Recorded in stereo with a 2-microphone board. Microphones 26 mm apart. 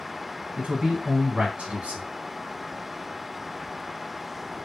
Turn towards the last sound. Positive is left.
turn(degrees=-50)  # may be behind; listen again after turning